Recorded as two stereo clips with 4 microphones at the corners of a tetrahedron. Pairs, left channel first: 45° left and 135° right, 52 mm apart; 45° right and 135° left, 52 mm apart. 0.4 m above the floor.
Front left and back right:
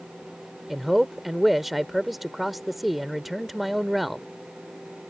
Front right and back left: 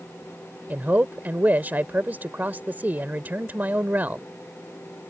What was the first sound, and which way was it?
A man speaking, 140° left.